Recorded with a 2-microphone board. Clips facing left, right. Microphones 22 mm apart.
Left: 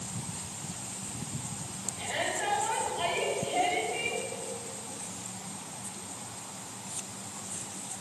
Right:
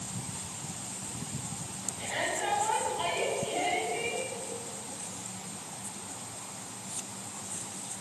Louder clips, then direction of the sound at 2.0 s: Even; 15° left (ahead or behind).